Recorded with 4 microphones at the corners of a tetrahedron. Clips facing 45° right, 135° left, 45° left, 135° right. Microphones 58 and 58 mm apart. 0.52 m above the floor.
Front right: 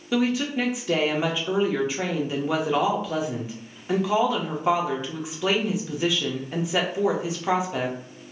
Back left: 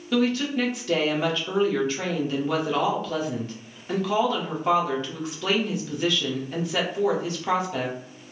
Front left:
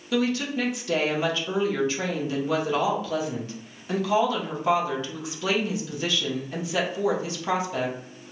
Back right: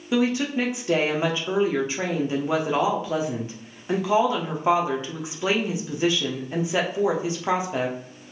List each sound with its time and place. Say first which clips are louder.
0.1 s a woman speaking: even, back right 2 dB; 110° right, 0.8 m